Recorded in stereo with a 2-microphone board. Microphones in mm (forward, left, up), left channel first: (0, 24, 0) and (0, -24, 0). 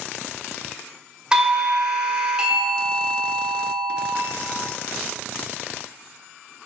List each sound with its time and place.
1.3 s a doorbell: 20° right (ahead or behind), 1.2 m